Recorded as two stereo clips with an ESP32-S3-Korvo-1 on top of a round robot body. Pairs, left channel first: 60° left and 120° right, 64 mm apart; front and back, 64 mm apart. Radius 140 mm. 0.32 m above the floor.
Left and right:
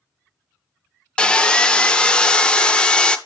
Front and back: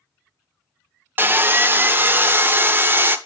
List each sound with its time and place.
1.2 s sawing: 130° left, 0.7 m